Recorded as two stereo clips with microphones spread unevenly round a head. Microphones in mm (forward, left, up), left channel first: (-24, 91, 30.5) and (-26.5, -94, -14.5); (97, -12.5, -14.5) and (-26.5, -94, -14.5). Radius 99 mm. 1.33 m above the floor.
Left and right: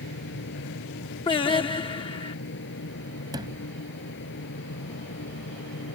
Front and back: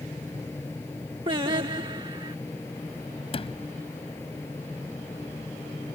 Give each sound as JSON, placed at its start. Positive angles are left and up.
{"t": 0.0, "sound": "a fan", "azimuth_deg": 115}
{"t": 1.3, "sound": "singing", "azimuth_deg": 150}
{"t": 3.3, "sound": "a sliding door", "azimuth_deg": -15}